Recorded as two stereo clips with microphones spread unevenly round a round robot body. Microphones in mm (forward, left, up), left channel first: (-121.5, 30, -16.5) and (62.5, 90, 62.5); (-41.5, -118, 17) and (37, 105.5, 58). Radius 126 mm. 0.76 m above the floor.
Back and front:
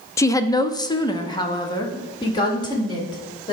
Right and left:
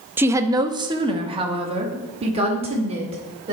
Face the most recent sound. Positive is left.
turn(degrees=135)